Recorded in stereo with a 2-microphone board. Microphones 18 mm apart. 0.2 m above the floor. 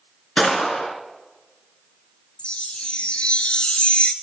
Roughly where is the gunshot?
Left.